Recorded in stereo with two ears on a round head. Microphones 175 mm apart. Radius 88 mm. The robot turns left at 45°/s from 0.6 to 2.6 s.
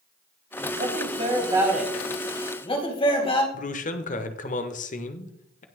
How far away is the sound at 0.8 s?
About 3 m.